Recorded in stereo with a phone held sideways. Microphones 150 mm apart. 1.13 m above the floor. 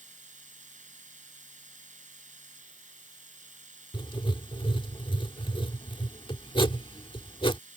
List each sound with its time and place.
0.0 s a machine running: 55° right (ahead or behind)
3.9 s writing: 35° left (ahead or behind)